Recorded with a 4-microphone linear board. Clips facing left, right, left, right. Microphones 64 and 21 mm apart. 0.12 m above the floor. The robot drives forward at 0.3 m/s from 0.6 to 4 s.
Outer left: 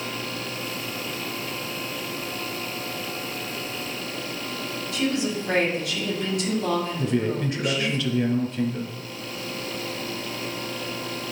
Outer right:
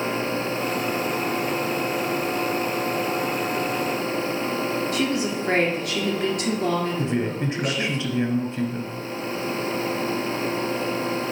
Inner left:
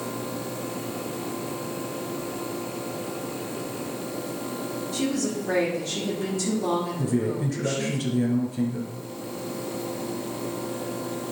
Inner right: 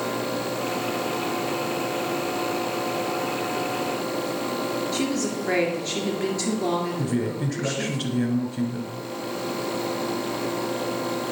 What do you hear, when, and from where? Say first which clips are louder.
4.9 s a woman speaking: outer right 2 dB, inner right 1 dB; 50° right (ahead or behind), 2 m
7.0 s a man speaking: even, even; 30° right (ahead or behind), 1.5 m